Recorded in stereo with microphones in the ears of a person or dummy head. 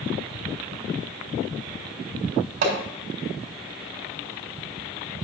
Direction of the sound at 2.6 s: 70° right (ahead or behind).